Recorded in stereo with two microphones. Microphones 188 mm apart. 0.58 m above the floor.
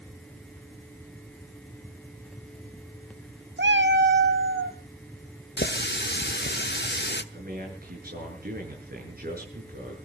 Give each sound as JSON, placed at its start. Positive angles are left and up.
{"t": 3.6, "sound": "a cat meowing", "side_deg": -65, "distance_m": 0.7}
{"t": 5.6, "sound": "a running tap", "side_deg": 65, "distance_m": 1.1}
{"t": 7.3, "sound": "a man speaking", "side_deg": -55, "distance_m": 7.5}